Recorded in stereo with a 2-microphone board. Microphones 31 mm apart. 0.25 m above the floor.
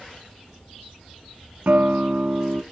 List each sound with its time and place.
1.7 s a guitar: 65° right (ahead or behind), 0.6 m